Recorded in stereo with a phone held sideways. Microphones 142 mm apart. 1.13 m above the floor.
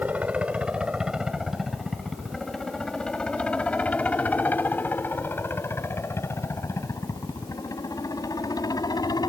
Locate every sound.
0.0 s a helicopter: 10° right (ahead or behind); by 9.3 s 25° left (ahead or behind)